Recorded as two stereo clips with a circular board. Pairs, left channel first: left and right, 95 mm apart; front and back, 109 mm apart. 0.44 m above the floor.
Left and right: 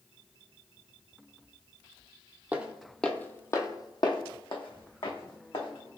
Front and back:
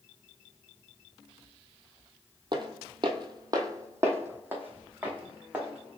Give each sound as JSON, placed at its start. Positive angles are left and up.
{"t": 2.5, "sound": "footsteps", "azimuth_deg": -155, "distance_m": 0.6}